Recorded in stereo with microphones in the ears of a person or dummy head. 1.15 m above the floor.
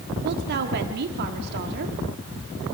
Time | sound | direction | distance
0.2 | a woman speaking | 60° right (ahead or behind) | 2 m